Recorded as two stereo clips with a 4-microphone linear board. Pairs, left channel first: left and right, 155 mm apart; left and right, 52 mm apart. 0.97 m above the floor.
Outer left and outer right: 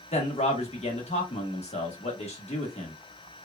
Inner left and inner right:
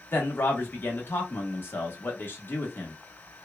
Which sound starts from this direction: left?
A man speaking, at 0.1 s.